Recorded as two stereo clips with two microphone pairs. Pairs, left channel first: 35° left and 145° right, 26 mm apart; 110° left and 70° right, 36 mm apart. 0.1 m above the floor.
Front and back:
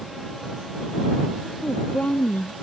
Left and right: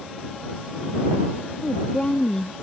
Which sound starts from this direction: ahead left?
A woman speaking, at 1.6 s.